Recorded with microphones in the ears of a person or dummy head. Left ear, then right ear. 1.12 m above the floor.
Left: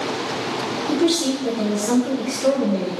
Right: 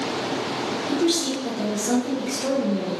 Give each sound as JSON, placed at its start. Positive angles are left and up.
{"t": 0.9, "sound": "a woman speaking", "side_deg": 10, "distance_m": 0.5}